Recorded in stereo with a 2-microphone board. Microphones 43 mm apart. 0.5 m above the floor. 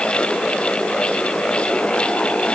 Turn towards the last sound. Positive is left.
No sound to turn to.